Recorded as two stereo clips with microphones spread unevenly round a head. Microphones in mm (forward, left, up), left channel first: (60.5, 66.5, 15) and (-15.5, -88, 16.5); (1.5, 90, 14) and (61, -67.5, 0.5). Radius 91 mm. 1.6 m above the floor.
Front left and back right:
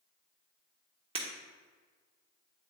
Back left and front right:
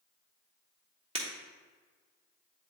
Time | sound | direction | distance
1.1 | breaking glass | 100° right | 1.3 m